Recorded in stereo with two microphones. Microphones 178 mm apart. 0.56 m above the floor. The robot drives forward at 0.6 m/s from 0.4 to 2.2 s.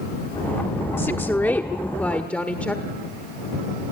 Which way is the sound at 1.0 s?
15° left (ahead or behind).